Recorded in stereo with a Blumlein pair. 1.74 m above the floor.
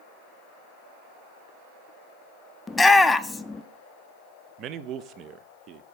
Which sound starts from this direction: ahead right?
A man speaking, at 4.6 s.